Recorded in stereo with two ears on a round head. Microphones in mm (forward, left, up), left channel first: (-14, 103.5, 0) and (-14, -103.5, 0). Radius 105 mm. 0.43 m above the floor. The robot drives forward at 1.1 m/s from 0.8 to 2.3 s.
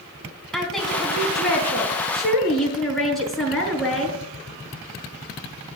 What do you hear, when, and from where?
0.5 s a woman speaking: centre (ahead or behind), 4 m